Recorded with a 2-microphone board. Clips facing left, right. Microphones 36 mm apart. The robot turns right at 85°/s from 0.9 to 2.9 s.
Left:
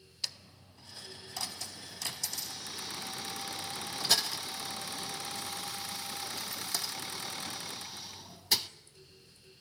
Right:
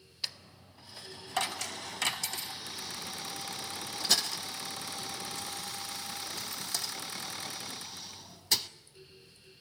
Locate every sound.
0.2 s a dropped coin: 15° right (ahead or behind), 0.5 m; by 8.7 s 5° left (ahead or behind), 0.5 m